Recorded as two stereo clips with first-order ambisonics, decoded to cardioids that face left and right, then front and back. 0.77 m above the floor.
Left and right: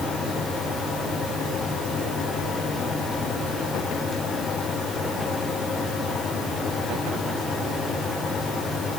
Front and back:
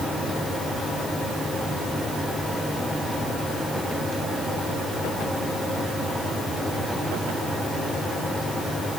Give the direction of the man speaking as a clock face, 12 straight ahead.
No man speaking in this recording.